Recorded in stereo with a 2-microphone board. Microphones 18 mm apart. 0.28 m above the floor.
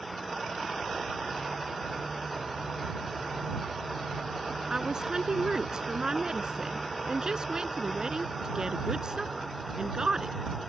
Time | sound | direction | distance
4.7 | a woman speaking | 40° right (ahead or behind) | ?